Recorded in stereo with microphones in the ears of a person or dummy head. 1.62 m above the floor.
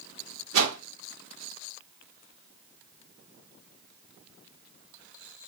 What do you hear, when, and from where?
0.5 s a whoosh: 70° right (ahead or behind), 1.4 m